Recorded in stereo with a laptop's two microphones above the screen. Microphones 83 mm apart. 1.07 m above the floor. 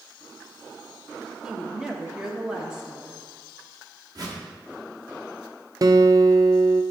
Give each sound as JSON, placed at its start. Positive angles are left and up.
{"t": 1.4, "sound": "a woman speaking", "side_deg": -10, "distance_m": 1.4}
{"t": 4.2, "sound": "a whoosh", "side_deg": -55, "distance_m": 1.2}
{"t": 5.8, "sound": "a guitar", "side_deg": -45, "distance_m": 0.5}